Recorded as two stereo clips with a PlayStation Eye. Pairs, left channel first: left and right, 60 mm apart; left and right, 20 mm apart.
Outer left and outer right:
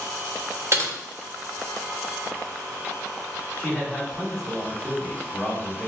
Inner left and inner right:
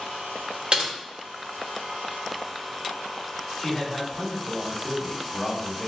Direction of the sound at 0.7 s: 45° right (ahead or behind).